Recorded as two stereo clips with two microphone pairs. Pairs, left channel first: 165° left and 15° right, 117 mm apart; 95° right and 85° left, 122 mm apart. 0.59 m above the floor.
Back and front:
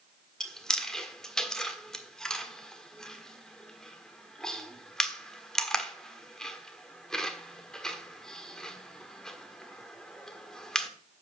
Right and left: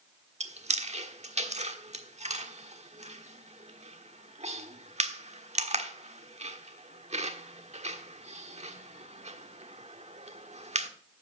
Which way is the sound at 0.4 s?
75° left.